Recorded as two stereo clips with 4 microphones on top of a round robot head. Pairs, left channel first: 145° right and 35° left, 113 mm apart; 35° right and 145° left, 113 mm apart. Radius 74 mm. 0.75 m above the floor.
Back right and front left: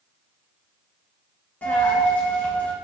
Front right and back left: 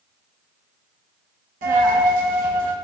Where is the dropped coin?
140° left, 2.5 m.